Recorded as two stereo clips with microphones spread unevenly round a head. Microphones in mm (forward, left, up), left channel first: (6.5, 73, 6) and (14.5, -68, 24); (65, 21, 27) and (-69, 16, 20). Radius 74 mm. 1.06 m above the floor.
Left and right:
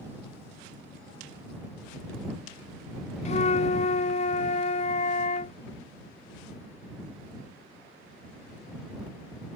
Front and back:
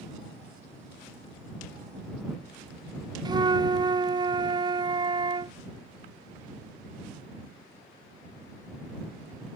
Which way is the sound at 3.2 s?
130° left.